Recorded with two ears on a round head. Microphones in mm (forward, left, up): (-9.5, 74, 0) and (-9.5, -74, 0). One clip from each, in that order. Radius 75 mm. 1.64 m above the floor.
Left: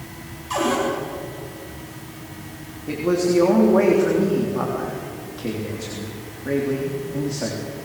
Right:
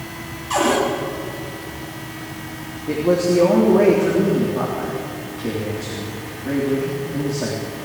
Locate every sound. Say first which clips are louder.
0.5 s a cupboard door: right 4 dB; centre (ahead or behind), 6 m
2.9 s a man speaking: right 3 dB; 40° left (ahead or behind), 3.5 m